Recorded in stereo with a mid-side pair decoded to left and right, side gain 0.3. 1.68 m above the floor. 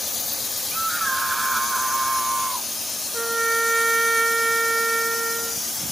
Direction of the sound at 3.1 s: 25° right.